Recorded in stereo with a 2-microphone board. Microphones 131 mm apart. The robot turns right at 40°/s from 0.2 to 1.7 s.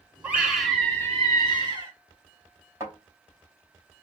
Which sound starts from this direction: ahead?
A scream, at 0.2 s.